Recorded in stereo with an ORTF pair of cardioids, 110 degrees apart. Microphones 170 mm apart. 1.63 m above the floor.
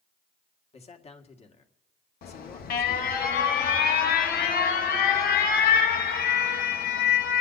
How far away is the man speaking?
About 1.9 m.